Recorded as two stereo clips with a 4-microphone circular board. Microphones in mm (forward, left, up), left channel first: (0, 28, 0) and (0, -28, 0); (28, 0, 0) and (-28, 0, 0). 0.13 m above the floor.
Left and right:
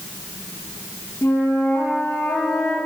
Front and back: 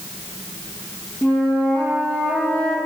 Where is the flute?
70° left, 3 m.